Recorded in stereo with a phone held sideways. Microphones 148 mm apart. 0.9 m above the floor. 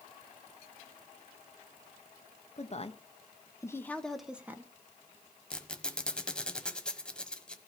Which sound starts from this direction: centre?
A squeak, at 5.5 s.